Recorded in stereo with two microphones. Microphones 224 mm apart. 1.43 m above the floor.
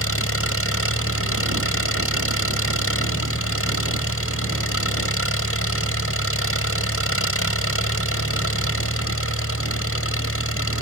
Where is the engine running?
75° left (ahead or behind).